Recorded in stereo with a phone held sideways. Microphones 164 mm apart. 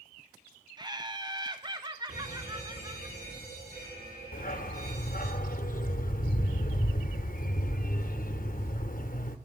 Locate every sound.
0.8 s laughter: 25° right (ahead or behind), 0.8 m
2.1 s a fire alarm: 80° right, 7.5 m
4.3 s a dog barking: 60° left (ahead or behind), 0.8 m